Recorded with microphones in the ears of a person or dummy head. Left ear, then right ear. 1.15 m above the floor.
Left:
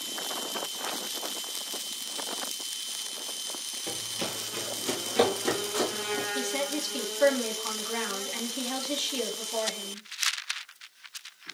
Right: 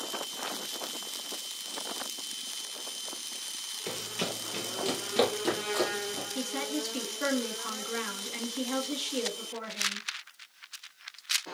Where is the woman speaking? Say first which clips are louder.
Left 3 dB; 15° left (ahead or behind), 2 m.